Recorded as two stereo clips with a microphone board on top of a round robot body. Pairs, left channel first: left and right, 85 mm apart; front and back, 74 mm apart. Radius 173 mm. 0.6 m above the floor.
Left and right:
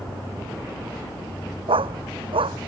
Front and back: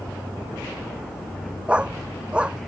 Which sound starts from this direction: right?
A dog barking, at 1.7 s.